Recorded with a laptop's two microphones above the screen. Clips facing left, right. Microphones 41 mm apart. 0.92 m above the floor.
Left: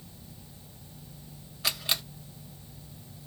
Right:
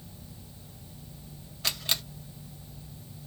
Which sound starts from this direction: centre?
A camera shutter, at 1.6 s.